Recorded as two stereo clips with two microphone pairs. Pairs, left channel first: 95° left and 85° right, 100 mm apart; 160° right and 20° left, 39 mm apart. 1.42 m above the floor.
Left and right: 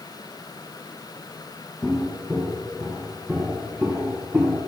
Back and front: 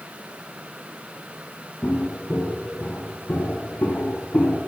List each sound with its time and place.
1.8 s footsteps: 175° right, 2.5 m; by 4.6 s 160° right, 4 m